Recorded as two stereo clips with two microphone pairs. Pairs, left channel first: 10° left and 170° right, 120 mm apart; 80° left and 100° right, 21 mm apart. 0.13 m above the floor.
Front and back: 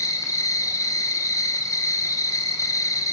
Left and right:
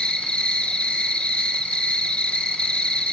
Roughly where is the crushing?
I don't hear crushing.